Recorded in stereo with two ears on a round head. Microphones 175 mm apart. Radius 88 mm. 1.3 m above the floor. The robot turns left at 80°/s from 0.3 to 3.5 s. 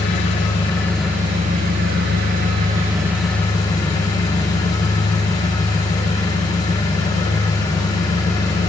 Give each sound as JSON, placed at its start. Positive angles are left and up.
{"t": 0.0, "sound": "an engine running", "azimuth_deg": 55, "distance_m": 3.5}